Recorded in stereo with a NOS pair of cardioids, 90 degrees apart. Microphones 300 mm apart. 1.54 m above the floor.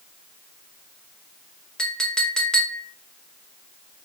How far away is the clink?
About 1.4 m.